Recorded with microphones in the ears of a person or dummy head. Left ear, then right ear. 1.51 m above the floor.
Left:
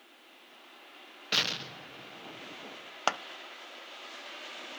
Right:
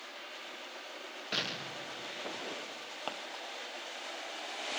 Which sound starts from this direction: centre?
An explosion, at 1.3 s.